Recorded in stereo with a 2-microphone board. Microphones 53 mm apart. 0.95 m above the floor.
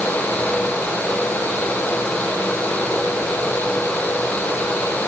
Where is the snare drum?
No snare drum in this recording.